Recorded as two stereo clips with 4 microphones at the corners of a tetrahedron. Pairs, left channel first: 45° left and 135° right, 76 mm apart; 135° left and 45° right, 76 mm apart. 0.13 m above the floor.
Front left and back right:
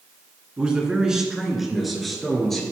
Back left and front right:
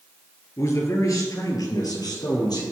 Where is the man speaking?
155° left, 1.8 m; by 2.6 s 130° left, 3 m.